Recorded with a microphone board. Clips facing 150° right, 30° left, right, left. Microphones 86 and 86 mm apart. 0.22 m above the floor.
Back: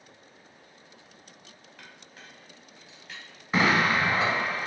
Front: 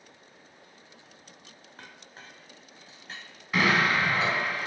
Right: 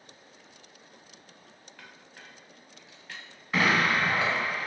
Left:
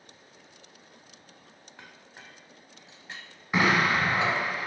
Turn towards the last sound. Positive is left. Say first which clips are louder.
# back 1 dB, left 1 dB
turn(degrees=155)